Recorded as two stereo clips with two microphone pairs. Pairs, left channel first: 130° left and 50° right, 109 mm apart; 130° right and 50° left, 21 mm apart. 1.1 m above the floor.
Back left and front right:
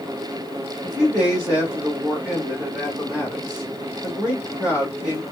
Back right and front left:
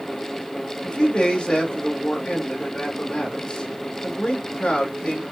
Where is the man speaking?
130° right, 1.9 m.